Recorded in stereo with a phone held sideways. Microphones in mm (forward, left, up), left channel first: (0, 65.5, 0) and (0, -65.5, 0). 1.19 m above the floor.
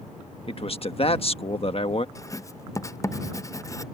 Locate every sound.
0.5 s a man speaking: 45° left (ahead or behind)
2.1 s writing: 25° left (ahead or behind)